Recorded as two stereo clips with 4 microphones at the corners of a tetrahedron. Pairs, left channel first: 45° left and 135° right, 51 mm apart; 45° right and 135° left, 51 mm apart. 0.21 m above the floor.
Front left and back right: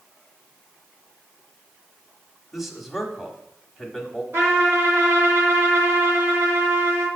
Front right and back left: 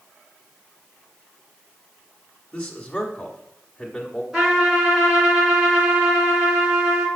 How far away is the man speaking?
About 1.1 m.